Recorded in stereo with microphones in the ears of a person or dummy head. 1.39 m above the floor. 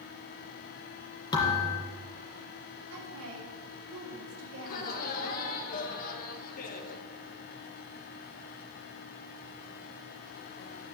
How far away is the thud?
About 3 m.